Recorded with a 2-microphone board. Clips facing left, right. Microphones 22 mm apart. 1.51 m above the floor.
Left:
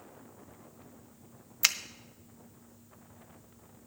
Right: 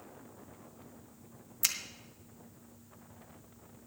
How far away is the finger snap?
About 0.6 m.